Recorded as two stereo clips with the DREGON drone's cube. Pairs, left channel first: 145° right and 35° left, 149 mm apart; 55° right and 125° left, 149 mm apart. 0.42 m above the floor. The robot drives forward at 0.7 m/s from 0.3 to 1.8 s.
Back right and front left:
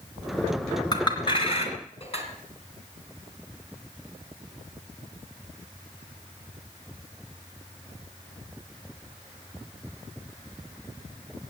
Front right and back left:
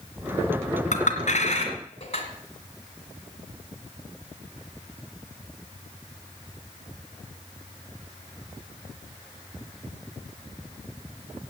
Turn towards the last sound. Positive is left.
turn(degrees=-100)